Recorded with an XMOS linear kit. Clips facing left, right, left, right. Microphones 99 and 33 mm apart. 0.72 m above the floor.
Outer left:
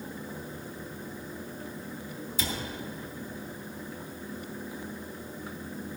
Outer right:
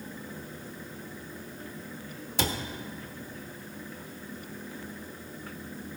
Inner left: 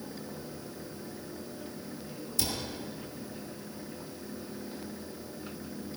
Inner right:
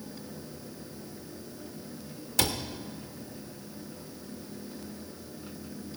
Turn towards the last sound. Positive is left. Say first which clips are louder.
# outer right 5 dB, inner right 6 dB
turn(degrees=-75)  # may be behind; listen again after turning